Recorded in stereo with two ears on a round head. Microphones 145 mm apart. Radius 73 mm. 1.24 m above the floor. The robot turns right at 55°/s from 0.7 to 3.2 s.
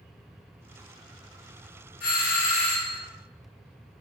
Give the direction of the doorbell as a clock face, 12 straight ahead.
9 o'clock.